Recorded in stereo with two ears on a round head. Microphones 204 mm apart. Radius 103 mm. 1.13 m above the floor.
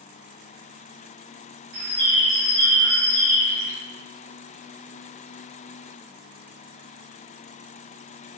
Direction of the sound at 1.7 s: 60° right (ahead or behind).